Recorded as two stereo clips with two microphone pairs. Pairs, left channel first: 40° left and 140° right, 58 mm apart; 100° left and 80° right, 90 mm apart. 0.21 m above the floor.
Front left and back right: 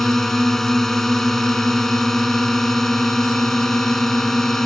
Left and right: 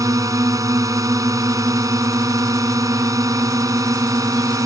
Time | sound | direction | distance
0.0 | a drone | 40° right | ?